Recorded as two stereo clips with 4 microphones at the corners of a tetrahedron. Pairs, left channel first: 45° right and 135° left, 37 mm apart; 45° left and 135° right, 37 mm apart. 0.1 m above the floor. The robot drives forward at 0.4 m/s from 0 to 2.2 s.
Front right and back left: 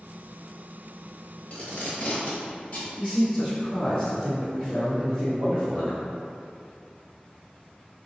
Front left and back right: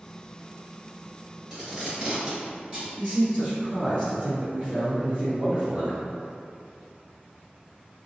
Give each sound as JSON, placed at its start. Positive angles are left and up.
{"t": 1.5, "sound": "tape being pulled", "azimuth_deg": -75, "distance_m": 1.3}
{"t": 3.0, "sound": "a man speaking", "azimuth_deg": -145, "distance_m": 1.7}